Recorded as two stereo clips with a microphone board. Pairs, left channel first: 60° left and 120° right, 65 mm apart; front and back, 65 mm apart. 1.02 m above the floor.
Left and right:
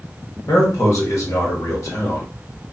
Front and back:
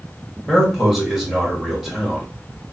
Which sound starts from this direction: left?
A man speaking, at 0.5 s.